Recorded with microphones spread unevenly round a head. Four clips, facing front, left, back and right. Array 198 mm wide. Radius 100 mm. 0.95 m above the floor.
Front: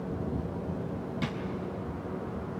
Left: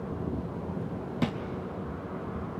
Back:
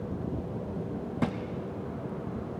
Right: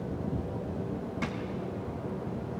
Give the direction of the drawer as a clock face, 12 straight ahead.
7 o'clock.